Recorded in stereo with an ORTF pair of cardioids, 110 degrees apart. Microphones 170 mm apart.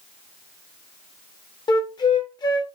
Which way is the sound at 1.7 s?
25° left.